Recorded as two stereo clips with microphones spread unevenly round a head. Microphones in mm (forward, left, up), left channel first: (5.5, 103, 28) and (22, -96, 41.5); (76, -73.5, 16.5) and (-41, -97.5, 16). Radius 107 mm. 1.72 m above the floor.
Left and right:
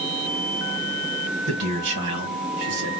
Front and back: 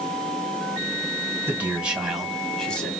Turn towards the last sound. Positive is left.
turn(degrees=-70)